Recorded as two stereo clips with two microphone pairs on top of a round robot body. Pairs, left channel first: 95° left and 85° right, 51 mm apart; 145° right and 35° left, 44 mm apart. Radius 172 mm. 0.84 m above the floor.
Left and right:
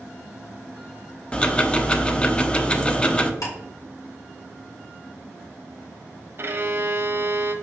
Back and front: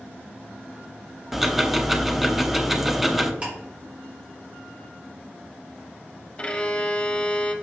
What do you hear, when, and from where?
1.3 s ticking: 110° left, 0.9 m
3.4 s ticking: 100° left, 2.5 m
6.4 s a violin: 85° right, 1.2 m